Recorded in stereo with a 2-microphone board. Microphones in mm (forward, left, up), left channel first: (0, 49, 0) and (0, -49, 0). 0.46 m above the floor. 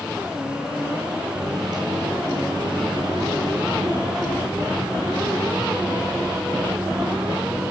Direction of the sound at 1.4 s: 50° right (ahead or behind).